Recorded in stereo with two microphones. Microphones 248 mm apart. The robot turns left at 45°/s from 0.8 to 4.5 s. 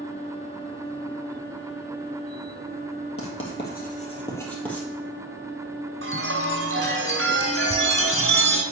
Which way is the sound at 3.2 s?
60° left (ahead or behind).